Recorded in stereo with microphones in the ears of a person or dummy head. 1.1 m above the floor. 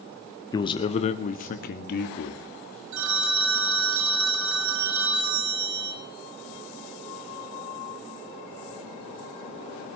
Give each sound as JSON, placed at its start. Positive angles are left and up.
{"t": 0.5, "sound": "a man speaking", "side_deg": 20, "distance_m": 1.1}
{"t": 2.9, "sound": "a phone ringing", "side_deg": -80, "distance_m": 1.2}